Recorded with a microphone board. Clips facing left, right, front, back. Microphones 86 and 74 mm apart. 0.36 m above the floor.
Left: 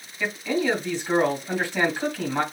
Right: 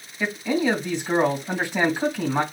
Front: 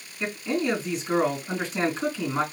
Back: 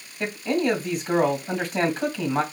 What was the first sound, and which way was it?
A man speaking, 165° right.